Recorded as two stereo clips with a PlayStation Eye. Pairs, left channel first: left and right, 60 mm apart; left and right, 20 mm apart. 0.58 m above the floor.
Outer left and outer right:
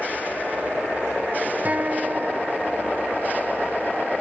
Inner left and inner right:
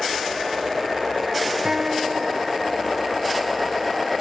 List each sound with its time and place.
1.6 s a guitar: 30° right (ahead or behind)